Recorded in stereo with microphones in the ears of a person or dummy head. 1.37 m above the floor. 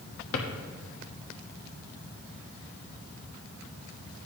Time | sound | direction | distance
0.3 | a drawer | 65° left (ahead or behind) | 1.2 m